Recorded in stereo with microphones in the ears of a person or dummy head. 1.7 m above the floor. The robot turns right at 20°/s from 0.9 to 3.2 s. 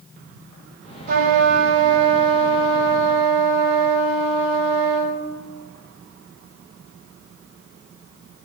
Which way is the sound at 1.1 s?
50° right.